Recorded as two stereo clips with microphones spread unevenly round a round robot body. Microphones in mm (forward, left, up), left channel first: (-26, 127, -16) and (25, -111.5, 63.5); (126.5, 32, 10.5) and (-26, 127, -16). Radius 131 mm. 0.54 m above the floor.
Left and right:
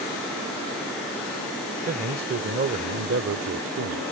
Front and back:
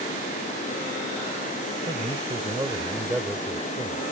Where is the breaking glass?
No breaking glass in this recording.